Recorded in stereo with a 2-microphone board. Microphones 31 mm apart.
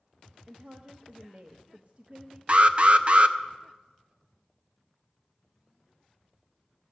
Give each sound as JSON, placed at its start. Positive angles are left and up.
{"t": 0.5, "sound": "a woman speaking", "side_deg": -45, "distance_m": 0.7}
{"t": 2.5, "sound": "an alarm", "side_deg": -40, "distance_m": 0.5}